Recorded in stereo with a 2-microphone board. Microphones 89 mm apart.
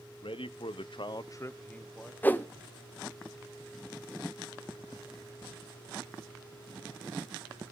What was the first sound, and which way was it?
A man speaking, 75° left (ahead or behind).